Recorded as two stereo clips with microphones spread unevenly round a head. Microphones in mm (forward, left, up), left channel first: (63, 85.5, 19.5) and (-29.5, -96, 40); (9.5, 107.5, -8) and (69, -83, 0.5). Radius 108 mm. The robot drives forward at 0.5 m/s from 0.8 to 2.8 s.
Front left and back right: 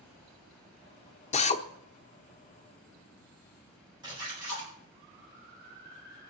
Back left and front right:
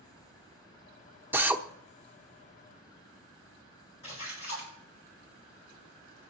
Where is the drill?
10° left, 1.1 m.